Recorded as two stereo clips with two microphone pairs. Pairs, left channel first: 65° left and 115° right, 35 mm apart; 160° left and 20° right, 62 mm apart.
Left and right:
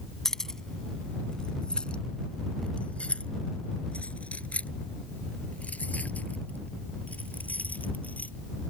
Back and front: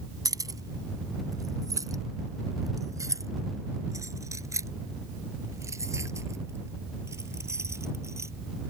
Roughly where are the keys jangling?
Ahead.